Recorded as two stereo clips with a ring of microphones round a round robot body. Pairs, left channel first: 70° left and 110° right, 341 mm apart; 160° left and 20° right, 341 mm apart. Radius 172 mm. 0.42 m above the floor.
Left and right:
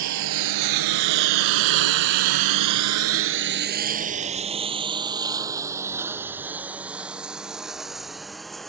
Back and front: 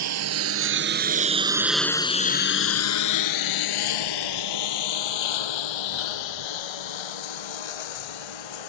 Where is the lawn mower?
65° right; by 8.7 s 155° left.